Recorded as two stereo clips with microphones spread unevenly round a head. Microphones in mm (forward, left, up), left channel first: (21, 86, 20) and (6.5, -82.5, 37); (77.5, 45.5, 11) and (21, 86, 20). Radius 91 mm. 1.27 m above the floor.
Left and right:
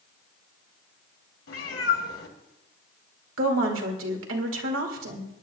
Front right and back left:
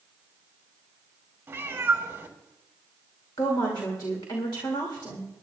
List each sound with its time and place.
1.5 s a cat meowing: 100° left, 1.9 m
3.4 s a woman speaking: 95° right, 2.5 m